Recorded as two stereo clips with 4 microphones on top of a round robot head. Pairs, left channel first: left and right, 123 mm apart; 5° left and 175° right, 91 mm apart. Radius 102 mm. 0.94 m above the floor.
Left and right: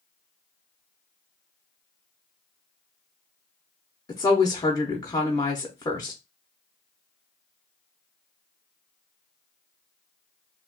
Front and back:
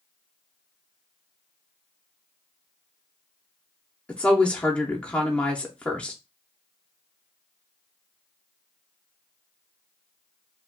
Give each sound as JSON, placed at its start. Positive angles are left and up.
{"t": 4.1, "sound": "a woman speaking", "azimuth_deg": 75, "distance_m": 0.7}